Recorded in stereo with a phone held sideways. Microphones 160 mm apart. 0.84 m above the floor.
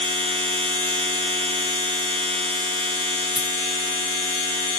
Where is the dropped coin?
25° left (ahead or behind), 1.6 m.